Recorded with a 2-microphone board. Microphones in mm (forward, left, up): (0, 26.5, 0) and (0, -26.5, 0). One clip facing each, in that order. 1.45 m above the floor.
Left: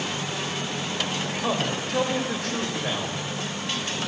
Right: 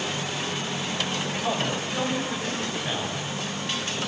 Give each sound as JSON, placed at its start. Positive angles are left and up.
{"t": 1.4, "sound": "a man speaking", "side_deg": 80, "distance_m": 7.0}